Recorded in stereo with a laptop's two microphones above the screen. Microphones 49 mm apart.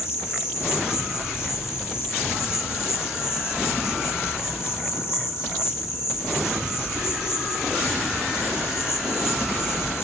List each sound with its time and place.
0.0 s an insect: 65° left (ahead or behind), 1.9 m